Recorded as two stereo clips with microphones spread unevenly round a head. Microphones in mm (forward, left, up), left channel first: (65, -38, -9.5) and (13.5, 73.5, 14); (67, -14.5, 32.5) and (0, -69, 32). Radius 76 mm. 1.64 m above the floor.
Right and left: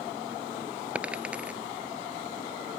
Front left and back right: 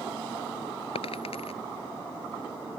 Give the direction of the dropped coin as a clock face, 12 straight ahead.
11 o'clock.